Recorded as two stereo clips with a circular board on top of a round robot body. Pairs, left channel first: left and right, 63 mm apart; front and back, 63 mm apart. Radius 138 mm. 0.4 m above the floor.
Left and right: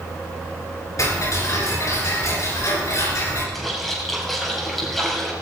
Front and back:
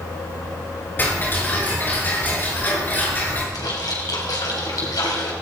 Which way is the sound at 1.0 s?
60° left.